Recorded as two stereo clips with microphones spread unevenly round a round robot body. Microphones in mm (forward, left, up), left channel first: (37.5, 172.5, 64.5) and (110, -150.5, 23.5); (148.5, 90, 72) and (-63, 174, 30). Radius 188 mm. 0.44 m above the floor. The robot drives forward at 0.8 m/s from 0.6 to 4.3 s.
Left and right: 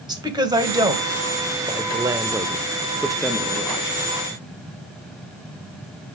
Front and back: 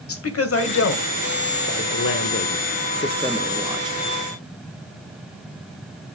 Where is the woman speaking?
Straight ahead, 2.5 m; by 4.0 s 175° right, 1.0 m.